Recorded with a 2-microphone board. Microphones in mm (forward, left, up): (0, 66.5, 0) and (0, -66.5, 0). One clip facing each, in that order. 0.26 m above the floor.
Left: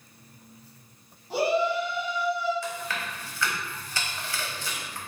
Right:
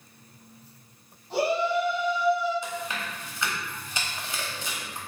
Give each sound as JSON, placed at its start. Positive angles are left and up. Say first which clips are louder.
{"t": 1.3, "sound": "a shout", "louder": "even", "side_deg": 10, "distance_m": 1.7}
{"t": 2.6, "sound": "chewing", "louder": "even", "side_deg": -20, "distance_m": 0.8}